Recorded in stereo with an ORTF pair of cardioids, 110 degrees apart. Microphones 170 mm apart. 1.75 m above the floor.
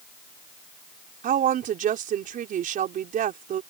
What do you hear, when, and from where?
1.2 s a woman speaking: 60° right